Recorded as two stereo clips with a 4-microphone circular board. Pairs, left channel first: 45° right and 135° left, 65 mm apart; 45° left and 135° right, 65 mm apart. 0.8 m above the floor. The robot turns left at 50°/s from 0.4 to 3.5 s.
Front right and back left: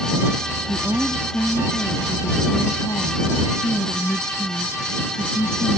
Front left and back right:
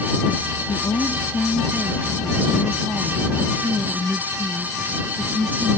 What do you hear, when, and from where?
0.7 s a woman speaking: 60° left; by 5.8 s 80° right